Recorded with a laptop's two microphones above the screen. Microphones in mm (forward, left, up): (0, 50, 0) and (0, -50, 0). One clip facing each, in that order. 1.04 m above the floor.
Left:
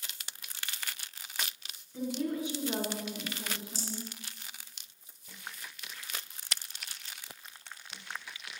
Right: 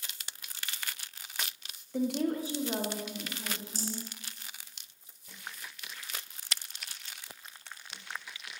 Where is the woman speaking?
75° right (ahead or behind), 0.9 m; by 4.0 s 25° left (ahead or behind), 2 m.